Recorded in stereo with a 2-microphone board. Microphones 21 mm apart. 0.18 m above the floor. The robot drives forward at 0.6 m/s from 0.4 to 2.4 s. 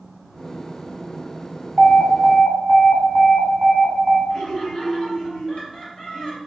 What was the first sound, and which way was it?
An alarm, 20° right (ahead or behind).